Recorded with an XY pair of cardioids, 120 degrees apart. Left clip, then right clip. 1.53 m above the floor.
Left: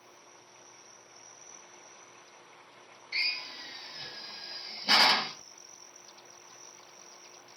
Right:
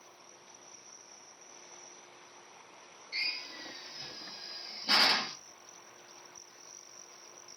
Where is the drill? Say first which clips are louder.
Left 4 dB; 45° left, 1.3 m.